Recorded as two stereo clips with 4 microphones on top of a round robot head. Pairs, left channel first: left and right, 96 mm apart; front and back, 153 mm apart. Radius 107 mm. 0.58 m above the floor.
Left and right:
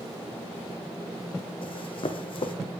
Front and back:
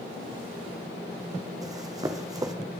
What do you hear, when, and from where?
1.6 s running footsteps: 115° left, 1.3 m